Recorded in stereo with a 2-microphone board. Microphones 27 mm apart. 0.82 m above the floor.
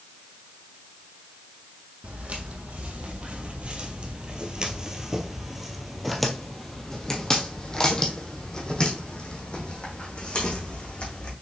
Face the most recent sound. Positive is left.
turn(degrees=40)  # may be behind; listen again after turning